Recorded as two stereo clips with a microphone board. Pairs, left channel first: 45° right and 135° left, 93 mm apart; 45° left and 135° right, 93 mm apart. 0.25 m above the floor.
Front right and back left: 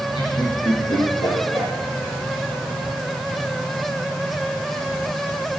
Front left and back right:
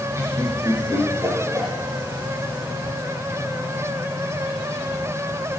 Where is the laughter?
75° right, 5 m; by 1.7 s 80° right, 6.5 m.